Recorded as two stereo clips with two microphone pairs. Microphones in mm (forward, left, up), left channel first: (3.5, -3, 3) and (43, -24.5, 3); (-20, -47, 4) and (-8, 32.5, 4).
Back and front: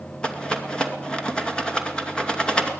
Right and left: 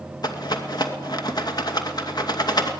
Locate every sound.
0.2 s a rattle: 135° right, 2.5 m